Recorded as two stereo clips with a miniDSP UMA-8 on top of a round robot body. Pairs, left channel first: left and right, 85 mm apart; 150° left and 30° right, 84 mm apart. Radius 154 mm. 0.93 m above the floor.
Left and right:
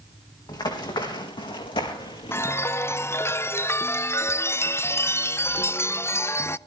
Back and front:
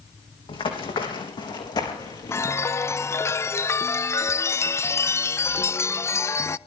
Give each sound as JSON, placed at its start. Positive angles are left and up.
{"t": 0.5, "sound": "running footsteps", "azimuth_deg": 130, "distance_m": 3.5}
{"t": 2.3, "sound": "a chime", "azimuth_deg": 125, "distance_m": 0.7}